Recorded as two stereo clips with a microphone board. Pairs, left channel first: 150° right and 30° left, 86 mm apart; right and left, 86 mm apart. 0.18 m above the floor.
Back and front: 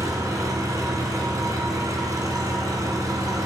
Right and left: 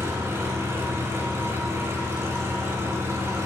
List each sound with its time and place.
0.0 s an engine running: 45° left, 1.4 m